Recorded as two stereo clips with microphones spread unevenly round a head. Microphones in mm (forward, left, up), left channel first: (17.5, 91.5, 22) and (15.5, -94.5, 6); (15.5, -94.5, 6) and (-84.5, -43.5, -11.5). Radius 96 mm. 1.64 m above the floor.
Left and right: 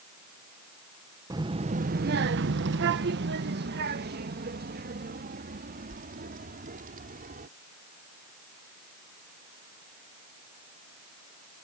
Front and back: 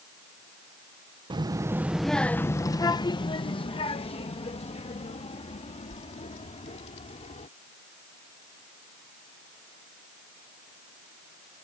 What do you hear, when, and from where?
1.3 s a child speaking: 165° right; by 7.5 s 45° right